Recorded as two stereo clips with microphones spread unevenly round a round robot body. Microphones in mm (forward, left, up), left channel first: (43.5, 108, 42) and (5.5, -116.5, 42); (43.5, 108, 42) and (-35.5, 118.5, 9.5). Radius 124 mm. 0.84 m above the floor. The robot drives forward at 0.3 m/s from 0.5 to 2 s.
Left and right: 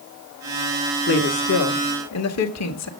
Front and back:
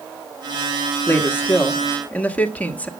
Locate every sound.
1.1 s a woman speaking: 60° left, 1.6 m; by 2.9 s 70° left, 1.5 m